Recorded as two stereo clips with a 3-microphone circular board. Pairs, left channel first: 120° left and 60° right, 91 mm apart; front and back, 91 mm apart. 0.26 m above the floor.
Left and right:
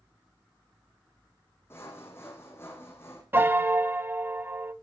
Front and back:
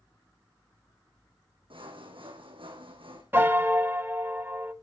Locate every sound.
1.7 s sawing: straight behind, 3 m
3.3 s a piano: 120° right, 0.6 m